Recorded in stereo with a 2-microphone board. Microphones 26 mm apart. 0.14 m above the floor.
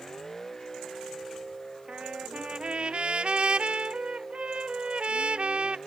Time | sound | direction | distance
0.0 | a vehicle | 20° left (ahead or behind) | ?
1.9 | a trumpet | 50° right (ahead or behind) | ?